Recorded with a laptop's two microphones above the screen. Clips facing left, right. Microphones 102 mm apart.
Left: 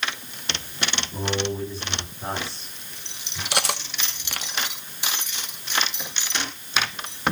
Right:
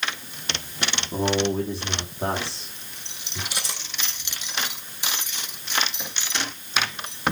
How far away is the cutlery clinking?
About 0.9 m.